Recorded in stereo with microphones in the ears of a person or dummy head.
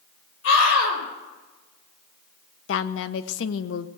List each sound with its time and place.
0.4 s a scream: 75° left (ahead or behind), 5.5 m
2.7 s a woman speaking: 75° left (ahead or behind), 0.9 m